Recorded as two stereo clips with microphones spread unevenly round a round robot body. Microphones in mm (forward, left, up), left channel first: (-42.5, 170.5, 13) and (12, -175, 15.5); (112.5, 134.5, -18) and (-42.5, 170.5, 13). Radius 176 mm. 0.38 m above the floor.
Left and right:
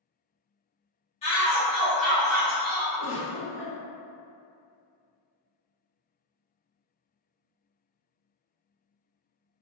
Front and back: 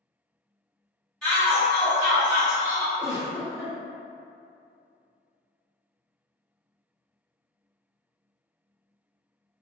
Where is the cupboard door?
I don't hear a cupboard door.